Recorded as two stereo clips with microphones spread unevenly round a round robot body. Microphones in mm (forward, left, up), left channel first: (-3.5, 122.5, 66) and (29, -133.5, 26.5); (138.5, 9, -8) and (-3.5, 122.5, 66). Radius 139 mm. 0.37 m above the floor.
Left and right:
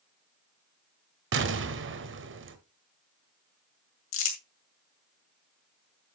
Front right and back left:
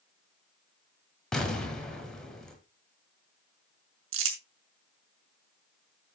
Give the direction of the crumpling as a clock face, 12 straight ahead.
7 o'clock.